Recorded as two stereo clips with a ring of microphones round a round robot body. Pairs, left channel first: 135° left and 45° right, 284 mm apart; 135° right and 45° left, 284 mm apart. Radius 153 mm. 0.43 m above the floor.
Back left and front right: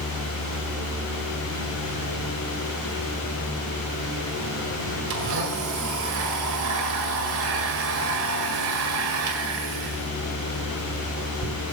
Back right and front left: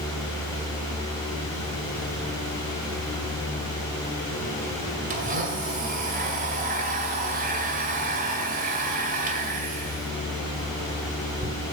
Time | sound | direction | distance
5.1 | a blender | 15° right | 1.9 m